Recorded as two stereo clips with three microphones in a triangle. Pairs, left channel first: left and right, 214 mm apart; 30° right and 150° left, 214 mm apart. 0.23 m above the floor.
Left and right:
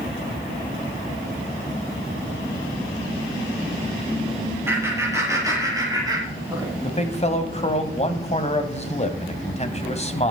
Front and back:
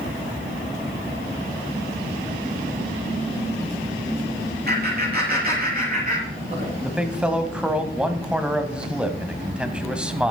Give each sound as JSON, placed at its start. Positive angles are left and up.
{"t": 4.7, "sound": "laughter", "azimuth_deg": -170, "distance_m": 6.0}
{"t": 6.8, "sound": "a man speaking", "azimuth_deg": 70, "distance_m": 1.8}